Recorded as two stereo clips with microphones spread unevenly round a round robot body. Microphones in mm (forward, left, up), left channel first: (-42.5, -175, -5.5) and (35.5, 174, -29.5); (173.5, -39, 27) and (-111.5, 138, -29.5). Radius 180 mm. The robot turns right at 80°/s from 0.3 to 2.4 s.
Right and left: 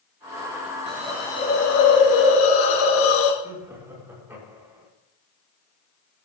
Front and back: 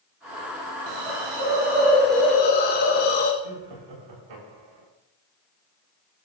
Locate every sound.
0.9 s a hiss: 140° left, 3 m; by 3.3 s 95° right, 3 m
3.4 s laughter: 160° left, 7.5 m